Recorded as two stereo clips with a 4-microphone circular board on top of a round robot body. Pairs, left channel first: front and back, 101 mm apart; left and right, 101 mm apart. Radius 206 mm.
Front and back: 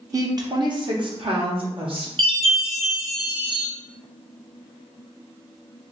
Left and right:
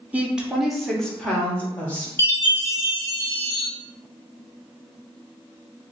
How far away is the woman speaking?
About 1.2 m.